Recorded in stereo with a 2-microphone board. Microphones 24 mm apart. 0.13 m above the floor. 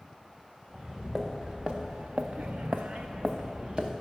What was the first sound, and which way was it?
Footsteps, 30° right (ahead or behind).